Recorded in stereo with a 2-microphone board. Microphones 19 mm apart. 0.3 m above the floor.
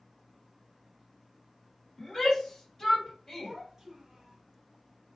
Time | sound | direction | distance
2.0 | a shout | 20° left (ahead or behind) | 1.7 m
3.4 | a child speaking | 25° right (ahead or behind) | 0.9 m